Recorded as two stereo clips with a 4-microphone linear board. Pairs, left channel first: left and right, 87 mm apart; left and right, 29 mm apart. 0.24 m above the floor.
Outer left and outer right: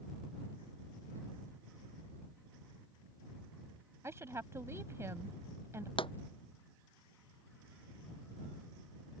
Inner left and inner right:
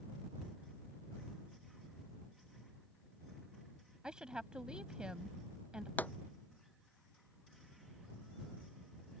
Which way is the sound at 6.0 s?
85° left.